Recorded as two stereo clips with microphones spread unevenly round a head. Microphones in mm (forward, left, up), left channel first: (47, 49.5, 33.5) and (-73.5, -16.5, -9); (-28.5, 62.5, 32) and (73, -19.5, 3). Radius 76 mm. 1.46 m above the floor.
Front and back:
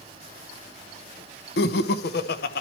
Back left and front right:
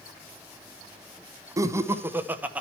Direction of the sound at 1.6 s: 30° left.